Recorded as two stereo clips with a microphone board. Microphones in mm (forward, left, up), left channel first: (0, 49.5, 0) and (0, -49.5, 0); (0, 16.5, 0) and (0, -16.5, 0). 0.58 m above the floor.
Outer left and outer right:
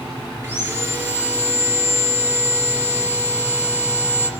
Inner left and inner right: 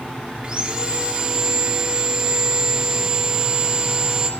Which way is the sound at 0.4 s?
20° right (ahead or behind).